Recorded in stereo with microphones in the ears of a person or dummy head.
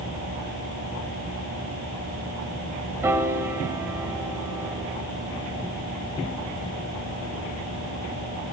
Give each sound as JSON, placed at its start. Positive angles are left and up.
{"t": 3.0, "sound": "a piano", "side_deg": -20, "distance_m": 2.5}